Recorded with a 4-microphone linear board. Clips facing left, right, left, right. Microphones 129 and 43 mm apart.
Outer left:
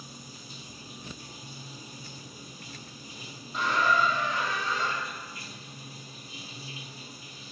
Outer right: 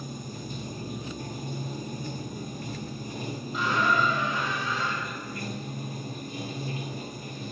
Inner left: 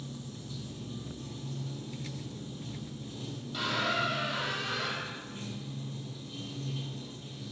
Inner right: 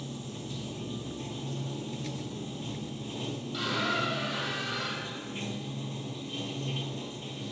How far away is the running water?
About 0.7 m.